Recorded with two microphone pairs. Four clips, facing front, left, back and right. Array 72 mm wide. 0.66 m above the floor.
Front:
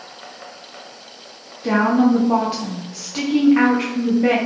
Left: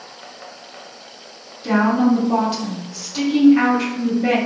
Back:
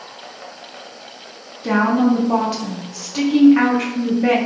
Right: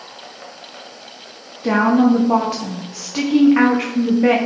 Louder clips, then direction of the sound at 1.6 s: Right 2 dB, even; 90° right.